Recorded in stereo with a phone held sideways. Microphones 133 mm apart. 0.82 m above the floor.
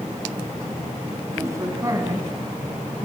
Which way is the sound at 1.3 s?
25° right (ahead or behind).